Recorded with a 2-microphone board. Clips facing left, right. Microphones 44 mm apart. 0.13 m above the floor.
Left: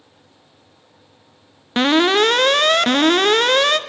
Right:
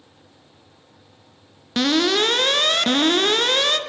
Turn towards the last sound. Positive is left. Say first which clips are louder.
# left 4 dB
turn(degrees=30)  # may be behind; listen again after turning